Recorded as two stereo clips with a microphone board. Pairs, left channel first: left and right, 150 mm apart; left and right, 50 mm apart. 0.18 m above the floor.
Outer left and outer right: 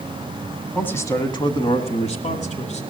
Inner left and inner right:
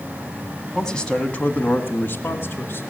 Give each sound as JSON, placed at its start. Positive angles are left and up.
{"t": 0.8, "sound": "a man speaking", "side_deg": 10, "distance_m": 1.0}